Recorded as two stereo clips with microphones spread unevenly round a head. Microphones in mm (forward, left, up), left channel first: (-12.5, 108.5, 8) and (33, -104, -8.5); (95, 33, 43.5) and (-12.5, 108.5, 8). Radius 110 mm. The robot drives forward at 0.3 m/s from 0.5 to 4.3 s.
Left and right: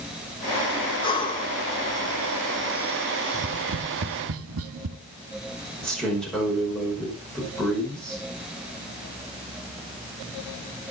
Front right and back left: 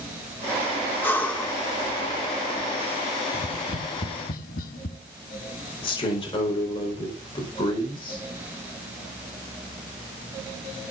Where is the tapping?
45° right, 1.8 m; by 5.0 s 55° right, 1.7 m.